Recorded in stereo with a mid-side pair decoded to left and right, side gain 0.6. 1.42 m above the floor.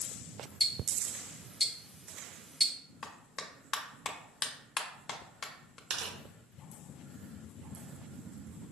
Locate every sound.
0.6 s ticking: 10° left, 0.5 m
3.0 s a clap: 45° left, 0.5 m
5.9 s tearing paper: 65° right, 0.7 m